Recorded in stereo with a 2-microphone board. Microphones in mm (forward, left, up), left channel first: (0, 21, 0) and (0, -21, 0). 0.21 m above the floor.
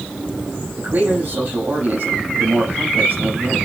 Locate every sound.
0.8 s a man speaking: 45° right (ahead or behind), 6 m